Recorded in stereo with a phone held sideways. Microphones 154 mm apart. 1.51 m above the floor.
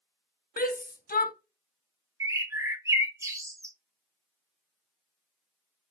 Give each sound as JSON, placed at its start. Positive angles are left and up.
{"t": 0.6, "sound": "a shout", "side_deg": 80, "distance_m": 0.9}
{"t": 2.2, "sound": "a bird", "side_deg": -20, "distance_m": 0.8}